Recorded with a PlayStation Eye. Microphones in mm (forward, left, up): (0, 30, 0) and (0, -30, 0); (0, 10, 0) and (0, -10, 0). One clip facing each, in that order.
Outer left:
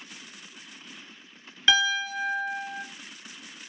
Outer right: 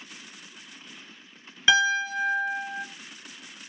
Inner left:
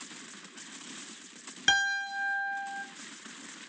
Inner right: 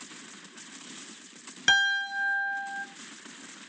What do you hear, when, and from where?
1.7 s a piano: 10° right (ahead or behind), 1.1 m